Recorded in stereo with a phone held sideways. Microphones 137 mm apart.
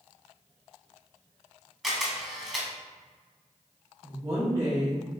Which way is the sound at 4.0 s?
35° right (ahead or behind).